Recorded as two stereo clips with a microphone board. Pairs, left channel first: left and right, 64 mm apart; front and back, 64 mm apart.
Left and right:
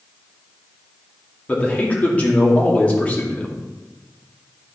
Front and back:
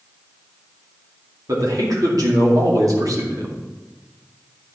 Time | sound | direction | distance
1.5 | a man speaking | 160° left | 2.5 m